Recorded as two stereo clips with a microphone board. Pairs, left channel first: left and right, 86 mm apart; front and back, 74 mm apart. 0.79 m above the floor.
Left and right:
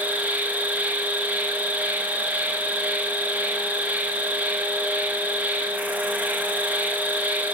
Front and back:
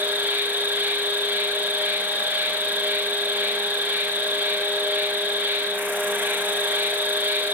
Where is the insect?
145° right, 0.9 m.